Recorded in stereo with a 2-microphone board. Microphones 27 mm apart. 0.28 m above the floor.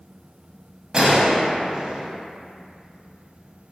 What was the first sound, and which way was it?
A gunshot, 30° right (ahead or behind).